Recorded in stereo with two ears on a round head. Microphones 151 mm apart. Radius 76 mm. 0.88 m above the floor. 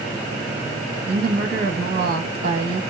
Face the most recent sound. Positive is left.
turn(degrees=-55)  # may be behind; listen again after turning